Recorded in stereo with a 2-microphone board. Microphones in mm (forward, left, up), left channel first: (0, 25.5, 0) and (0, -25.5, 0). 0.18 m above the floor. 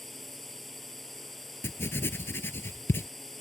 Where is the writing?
55° left (ahead or behind).